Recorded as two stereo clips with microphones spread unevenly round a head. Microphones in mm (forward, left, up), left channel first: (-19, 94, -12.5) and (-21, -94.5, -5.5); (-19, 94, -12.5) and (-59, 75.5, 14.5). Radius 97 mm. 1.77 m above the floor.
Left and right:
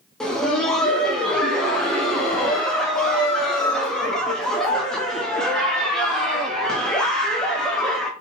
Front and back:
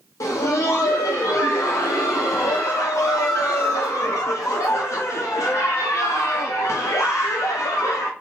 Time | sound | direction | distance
0.2 | laughter | straight ahead | 0.7 m